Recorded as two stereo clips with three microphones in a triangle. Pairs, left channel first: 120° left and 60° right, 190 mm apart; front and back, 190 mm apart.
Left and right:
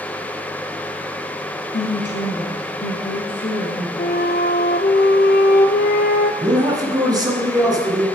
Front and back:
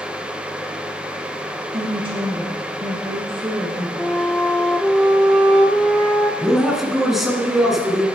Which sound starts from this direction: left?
A flute, at 4.0 s.